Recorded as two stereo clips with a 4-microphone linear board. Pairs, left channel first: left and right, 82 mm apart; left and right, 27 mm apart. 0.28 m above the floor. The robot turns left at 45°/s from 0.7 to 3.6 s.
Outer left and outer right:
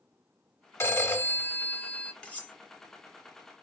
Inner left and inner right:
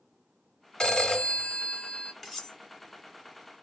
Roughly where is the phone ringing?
Left.